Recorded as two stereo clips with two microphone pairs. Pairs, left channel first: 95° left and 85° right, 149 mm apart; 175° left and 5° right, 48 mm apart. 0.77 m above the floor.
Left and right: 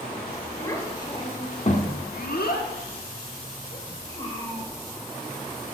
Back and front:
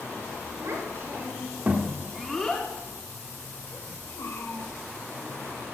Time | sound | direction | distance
0.6 | a child speaking | 25° left | 2.5 m